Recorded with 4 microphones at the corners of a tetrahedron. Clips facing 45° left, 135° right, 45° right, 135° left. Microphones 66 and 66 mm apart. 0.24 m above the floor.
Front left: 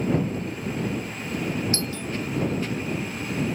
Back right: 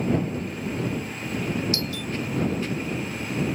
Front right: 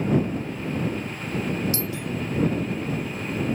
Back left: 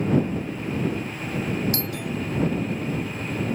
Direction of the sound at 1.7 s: 100° left.